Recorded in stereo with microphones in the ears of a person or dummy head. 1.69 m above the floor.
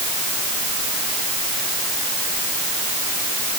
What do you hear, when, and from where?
Only background noise.